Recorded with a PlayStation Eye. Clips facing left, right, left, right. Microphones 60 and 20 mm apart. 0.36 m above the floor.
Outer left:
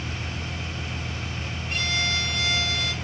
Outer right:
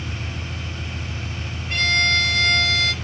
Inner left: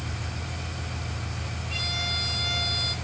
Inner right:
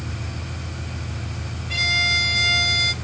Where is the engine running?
20° right (ahead or behind), 0.8 m.